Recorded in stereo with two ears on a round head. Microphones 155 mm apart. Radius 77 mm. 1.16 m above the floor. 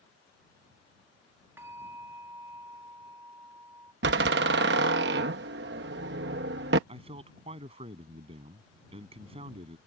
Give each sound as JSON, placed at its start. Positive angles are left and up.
{"t": 1.6, "sound": "a bell", "side_deg": -15}
{"t": 4.0, "sound": "a door slam", "side_deg": -65}
{"t": 6.9, "sound": "a man speaking", "side_deg": -35}